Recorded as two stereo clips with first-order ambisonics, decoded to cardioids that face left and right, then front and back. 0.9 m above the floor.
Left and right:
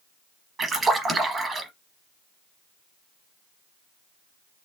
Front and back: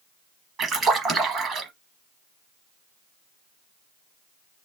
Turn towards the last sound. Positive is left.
turn(degrees=-145)